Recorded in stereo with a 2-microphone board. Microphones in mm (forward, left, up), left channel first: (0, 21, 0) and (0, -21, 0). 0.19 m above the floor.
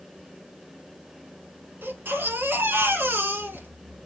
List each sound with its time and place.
1.8 s a baby crying: 70° right (ahead or behind), 2.5 m